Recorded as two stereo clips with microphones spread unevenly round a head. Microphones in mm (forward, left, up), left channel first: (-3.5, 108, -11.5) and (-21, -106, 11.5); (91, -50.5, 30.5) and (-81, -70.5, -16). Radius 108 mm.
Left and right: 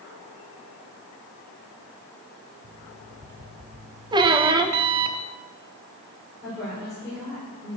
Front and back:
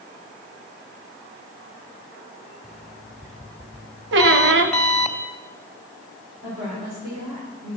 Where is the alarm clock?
70° right, 1.9 m.